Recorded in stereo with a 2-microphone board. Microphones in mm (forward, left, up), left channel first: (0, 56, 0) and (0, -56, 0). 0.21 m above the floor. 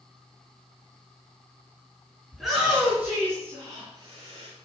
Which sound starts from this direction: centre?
A shout, at 2.3 s.